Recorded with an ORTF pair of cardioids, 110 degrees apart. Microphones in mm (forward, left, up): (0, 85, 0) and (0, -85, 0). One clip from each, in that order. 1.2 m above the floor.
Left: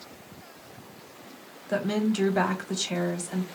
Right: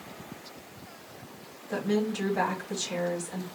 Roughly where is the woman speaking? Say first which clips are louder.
Left 2 dB; ahead left.